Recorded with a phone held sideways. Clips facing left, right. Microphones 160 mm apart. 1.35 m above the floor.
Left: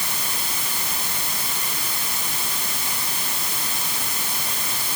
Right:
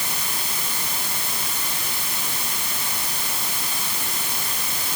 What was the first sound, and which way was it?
Only background noise.